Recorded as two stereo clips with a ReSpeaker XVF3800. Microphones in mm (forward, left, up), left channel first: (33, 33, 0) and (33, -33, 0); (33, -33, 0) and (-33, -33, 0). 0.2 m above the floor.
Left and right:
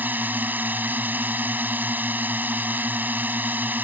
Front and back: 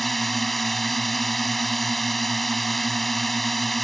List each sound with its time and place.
0.0 s a drone: 85° right